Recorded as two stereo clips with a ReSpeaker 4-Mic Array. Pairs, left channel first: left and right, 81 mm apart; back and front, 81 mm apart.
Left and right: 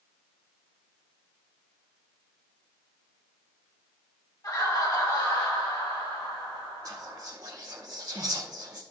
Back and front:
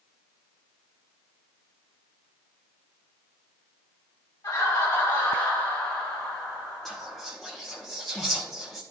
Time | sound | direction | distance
4.4 | laughter | 130° left | 4 m
6.8 | whispering | 95° right | 0.9 m